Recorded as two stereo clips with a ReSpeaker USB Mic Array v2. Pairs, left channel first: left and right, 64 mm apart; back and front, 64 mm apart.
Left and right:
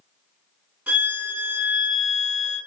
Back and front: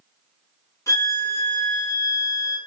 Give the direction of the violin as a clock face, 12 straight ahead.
5 o'clock.